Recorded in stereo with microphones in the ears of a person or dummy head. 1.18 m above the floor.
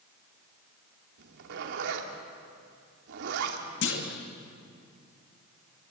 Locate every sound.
1.2 s a zipper: 65° right (ahead or behind), 3 m
3.8 s a clunk: 60° left (ahead or behind), 2.5 m